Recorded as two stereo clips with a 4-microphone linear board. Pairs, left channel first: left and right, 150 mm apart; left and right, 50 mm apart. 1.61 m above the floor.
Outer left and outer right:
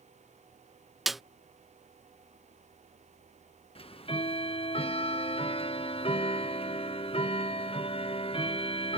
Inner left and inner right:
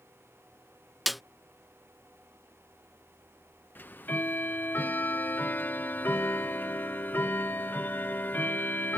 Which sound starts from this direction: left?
Ticking, at 3.8 s.